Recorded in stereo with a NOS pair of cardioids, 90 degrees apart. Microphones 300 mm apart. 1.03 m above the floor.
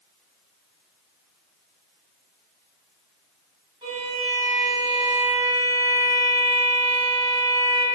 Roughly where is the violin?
Ahead.